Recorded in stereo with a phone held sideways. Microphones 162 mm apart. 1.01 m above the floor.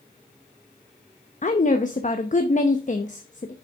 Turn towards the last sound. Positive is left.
turn(degrees=50)  # may be behind; listen again after turning